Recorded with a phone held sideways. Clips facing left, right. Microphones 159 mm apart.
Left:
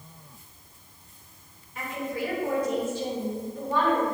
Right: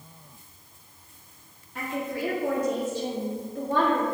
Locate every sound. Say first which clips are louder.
1.8 s a woman speaking: right 1 dB; 85° right, 3 m